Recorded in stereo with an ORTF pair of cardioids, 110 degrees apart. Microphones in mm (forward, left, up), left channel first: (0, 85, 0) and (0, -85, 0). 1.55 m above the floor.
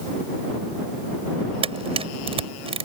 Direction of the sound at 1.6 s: 35° right.